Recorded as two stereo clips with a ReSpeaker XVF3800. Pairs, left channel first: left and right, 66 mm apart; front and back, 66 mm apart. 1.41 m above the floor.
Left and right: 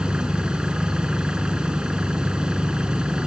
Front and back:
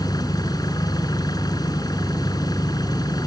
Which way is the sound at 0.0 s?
15° right.